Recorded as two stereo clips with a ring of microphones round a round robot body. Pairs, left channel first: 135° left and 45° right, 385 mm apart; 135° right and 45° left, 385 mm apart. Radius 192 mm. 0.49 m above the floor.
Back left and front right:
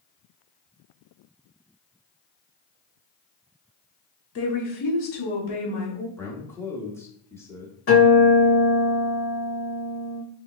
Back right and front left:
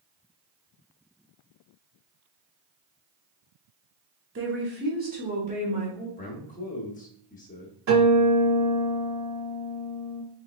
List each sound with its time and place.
4.3 s a woman speaking: 90° left, 1.0 m; by 6.1 s 120° left, 1.7 m
6.2 s a man speaking: 155° right, 0.9 m
7.9 s a guitar: 85° left, 2.5 m